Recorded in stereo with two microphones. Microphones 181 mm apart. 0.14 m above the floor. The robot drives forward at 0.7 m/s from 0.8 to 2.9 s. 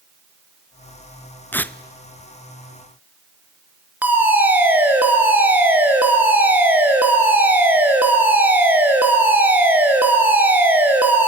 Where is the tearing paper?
10° left (ahead or behind), 0.5 m.